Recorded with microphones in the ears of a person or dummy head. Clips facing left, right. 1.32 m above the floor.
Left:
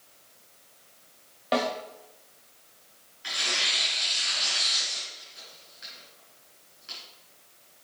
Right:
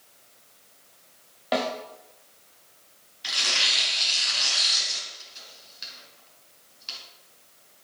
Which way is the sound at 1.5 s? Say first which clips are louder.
Even; centre (ahead or behind).